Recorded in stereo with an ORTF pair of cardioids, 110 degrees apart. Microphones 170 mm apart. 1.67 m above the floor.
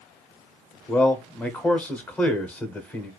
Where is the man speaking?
10° left, 0.8 m.